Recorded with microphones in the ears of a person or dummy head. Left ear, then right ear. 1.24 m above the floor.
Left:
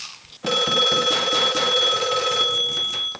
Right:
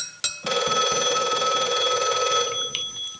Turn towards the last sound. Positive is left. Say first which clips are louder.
# left 4 dB
turn(degrees=0)  # may be behind; listen again after turning